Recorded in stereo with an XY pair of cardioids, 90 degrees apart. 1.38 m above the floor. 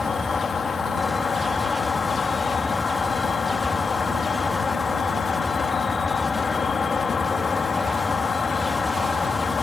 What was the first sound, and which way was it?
An insect, 45° left.